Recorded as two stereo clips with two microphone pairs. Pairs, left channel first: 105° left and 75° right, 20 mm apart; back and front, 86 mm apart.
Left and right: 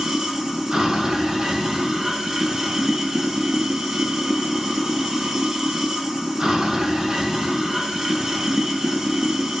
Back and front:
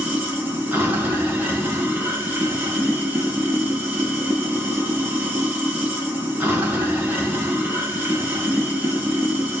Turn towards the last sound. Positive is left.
turn(degrees=-40)